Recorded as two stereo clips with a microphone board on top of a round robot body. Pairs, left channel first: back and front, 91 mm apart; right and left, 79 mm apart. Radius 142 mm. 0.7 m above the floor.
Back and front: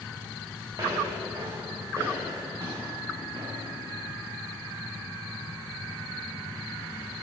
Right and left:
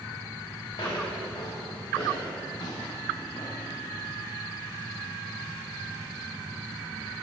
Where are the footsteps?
60° right, 5.5 m; by 3.6 s 50° right, 4 m.